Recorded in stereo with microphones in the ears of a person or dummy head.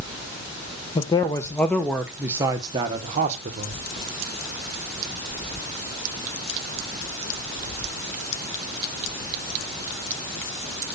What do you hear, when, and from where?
0.9 s a man speaking: 30° left (ahead or behind), 1.2 m; by 3.8 s 45° right (ahead or behind), 1.5 m